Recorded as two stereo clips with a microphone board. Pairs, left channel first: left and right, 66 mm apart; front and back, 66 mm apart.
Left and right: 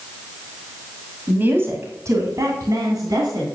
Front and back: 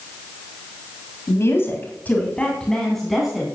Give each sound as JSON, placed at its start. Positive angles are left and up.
{"t": 1.3, "sound": "a woman speaking", "azimuth_deg": -35, "distance_m": 2.5}